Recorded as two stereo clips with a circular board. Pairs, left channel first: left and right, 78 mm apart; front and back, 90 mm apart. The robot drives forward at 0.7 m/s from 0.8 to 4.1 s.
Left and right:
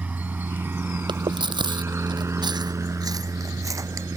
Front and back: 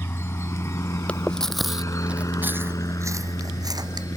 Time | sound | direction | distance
0.0 | a helicopter | 40° right | ?
1.1 | chewing | 75° right | ?